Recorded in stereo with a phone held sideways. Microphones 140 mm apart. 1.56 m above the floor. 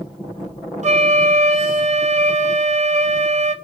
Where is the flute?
55° right (ahead or behind), 0.6 m.